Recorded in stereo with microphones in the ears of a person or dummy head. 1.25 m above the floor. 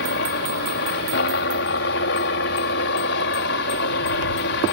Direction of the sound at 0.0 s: 60° left (ahead or behind).